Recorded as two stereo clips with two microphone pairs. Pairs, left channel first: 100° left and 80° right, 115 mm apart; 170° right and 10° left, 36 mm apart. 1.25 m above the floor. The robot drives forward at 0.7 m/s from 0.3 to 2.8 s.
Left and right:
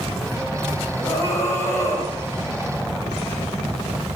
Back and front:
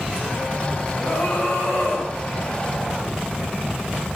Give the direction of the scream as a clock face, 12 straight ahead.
7 o'clock.